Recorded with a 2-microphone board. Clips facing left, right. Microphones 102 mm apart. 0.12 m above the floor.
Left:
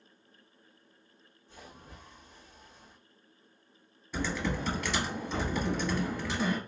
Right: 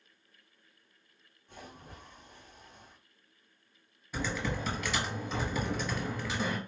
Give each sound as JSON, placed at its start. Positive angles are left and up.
{"t": 1.5, "sound": "a splash", "side_deg": -55, "distance_m": 2.0}
{"t": 4.1, "sound": "typing on a keyboard", "side_deg": -5, "distance_m": 1.6}